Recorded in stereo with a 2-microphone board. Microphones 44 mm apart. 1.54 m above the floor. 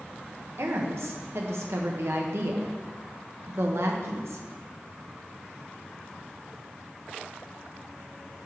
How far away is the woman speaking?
About 1.3 m.